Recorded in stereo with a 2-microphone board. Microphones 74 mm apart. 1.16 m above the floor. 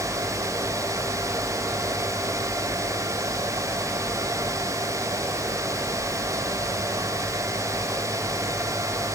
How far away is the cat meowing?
No cat meowing in this recording.